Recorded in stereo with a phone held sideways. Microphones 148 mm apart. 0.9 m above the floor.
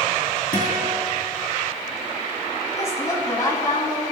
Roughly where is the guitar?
Left.